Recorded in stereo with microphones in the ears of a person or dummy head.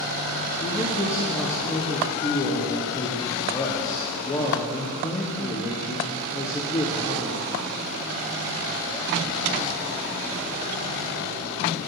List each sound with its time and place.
0.6 s a man speaking: 20° left (ahead or behind), 1.1 m